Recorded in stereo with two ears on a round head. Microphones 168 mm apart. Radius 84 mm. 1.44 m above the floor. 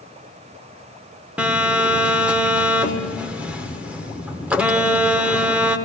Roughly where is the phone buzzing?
Centre.